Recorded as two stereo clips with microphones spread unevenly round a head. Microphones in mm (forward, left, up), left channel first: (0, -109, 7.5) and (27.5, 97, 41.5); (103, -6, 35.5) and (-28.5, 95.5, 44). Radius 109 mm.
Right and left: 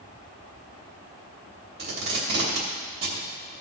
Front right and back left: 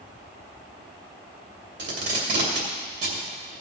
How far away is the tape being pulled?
About 2.5 m.